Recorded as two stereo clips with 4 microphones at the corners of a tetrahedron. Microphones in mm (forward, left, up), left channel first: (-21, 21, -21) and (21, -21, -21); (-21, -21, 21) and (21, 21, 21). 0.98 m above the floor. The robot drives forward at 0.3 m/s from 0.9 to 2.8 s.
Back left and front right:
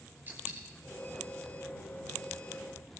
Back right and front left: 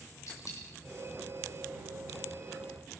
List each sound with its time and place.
0.3 s a dropped coin: 100° right, 8 m